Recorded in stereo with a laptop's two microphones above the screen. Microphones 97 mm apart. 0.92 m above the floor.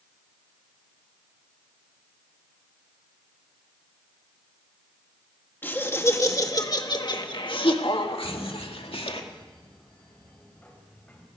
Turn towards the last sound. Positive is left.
turn(degrees=15)  # may be behind; listen again after turning